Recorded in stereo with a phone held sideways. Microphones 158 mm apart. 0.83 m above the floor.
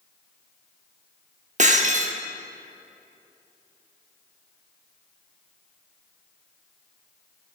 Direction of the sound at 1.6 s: 50° right (ahead or behind).